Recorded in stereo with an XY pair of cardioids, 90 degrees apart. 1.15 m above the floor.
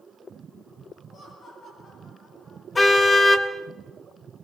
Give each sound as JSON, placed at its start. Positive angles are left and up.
{"t": 1.1, "sound": "laughter", "azimuth_deg": 65, "distance_m": 8.5}
{"t": 2.8, "sound": "a car horn", "azimuth_deg": 30, "distance_m": 2.0}